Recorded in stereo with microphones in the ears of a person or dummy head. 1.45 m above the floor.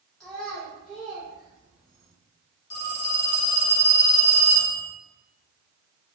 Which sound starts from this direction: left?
A phone ringing, at 2.7 s.